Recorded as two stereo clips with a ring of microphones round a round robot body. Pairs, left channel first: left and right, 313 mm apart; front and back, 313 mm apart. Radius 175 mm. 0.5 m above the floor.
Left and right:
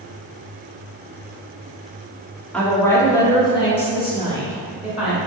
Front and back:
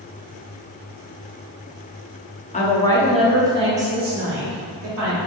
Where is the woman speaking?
10° left, 0.9 m; by 5.2 s 155° left, 1.4 m.